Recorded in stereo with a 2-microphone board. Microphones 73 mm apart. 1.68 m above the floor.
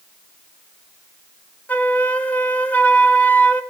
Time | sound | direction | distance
1.7 | a flute | 20° left (ahead or behind) | 1.1 m